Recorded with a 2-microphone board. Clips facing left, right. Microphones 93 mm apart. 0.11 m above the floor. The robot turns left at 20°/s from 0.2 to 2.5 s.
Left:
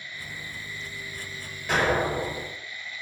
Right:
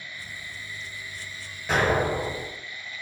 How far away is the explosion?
About 1.8 m.